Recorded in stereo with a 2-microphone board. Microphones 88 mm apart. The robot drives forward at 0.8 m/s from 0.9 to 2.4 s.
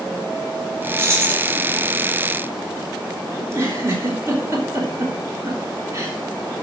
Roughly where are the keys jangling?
Right.